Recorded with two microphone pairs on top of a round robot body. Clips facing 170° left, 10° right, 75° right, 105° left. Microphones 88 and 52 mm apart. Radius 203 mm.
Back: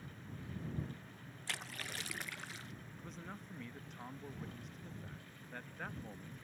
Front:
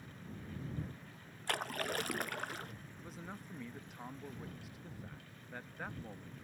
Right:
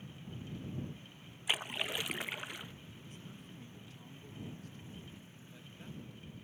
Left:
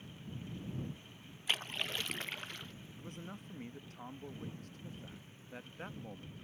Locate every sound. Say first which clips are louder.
1.5 s a splash: front 9 dB, right 1 dB; 5° right
3.0 s a man speaking: front 1 dB, left 4 dB; 75° left